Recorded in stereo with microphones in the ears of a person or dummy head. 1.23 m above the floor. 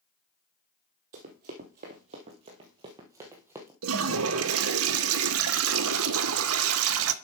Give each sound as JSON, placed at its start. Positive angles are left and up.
{"t": 1.1, "sound": "running footsteps", "side_deg": -35, "distance_m": 1.5}
{"t": 3.8, "sound": "a toilet flushing", "side_deg": -75, "distance_m": 0.8}